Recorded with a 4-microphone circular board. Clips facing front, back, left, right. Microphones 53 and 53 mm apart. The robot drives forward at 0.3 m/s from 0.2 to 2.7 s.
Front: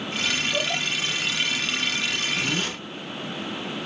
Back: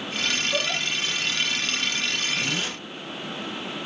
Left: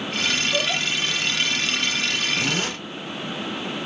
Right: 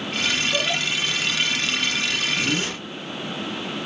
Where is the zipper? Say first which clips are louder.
Front 1 dB, even; 90° left, 0.9 m; by 2.7 s 95° left, 1.0 m.